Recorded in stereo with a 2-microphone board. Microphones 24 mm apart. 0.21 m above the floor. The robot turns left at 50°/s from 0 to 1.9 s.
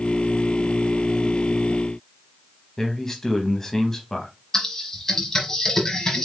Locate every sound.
2.8 s a man speaking: 20° left (ahead or behind), 1.0 m
4.5 s typing on a keyboard: 20° left (ahead or behind), 1.2 m